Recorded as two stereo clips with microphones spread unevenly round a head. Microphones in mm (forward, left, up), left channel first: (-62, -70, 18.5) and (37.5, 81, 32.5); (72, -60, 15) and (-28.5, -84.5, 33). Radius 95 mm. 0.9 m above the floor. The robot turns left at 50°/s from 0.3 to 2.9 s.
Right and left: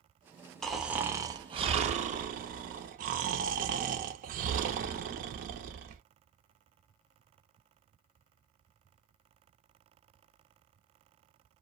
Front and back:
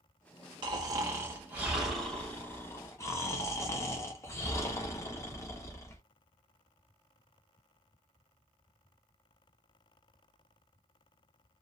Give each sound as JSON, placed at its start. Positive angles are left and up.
{"t": 0.6, "sound": "snoring", "azimuth_deg": 155, "distance_m": 0.6}